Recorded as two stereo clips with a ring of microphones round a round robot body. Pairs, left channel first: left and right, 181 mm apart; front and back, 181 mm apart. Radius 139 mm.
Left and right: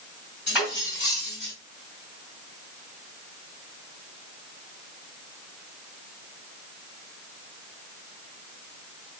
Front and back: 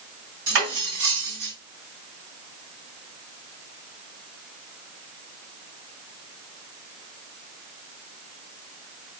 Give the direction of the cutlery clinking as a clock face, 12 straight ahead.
6 o'clock.